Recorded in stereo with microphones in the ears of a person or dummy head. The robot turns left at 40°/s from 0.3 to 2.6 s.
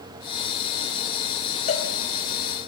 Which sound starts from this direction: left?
A cowbell, at 1.7 s.